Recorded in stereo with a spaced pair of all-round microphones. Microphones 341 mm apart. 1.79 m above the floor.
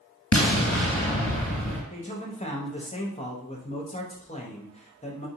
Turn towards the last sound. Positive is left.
turn(degrees=20)  # may be behind; listen again after turning